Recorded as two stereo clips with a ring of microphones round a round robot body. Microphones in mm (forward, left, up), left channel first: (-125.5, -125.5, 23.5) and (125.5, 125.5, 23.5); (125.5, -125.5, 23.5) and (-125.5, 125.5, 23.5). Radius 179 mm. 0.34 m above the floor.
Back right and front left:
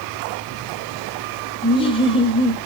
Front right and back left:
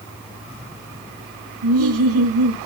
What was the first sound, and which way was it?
Laughter, 155° left.